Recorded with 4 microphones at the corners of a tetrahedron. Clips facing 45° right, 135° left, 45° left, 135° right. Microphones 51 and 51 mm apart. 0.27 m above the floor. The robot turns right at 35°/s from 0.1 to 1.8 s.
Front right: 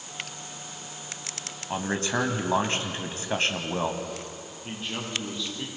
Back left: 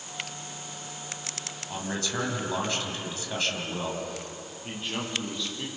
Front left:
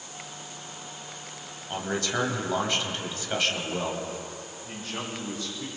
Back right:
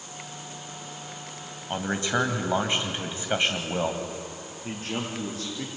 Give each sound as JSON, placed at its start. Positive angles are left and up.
{"t": 1.7, "sound": "a man speaking", "azimuth_deg": -80, "distance_m": 1.8}
{"t": 4.6, "sound": "a man speaking", "azimuth_deg": -135, "distance_m": 8.0}